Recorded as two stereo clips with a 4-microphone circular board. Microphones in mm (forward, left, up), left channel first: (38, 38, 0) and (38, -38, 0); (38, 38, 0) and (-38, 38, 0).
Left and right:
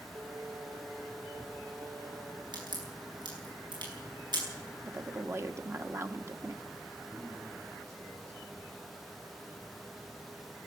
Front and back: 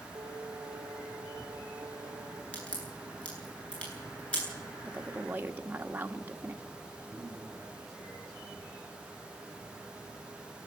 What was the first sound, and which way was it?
Singing, 130° right.